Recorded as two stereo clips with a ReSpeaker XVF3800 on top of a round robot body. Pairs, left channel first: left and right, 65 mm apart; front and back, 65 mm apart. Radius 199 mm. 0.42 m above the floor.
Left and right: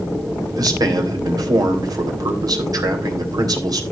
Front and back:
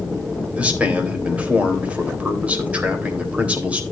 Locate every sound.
0.5 s a man speaking: 110° right, 3.5 m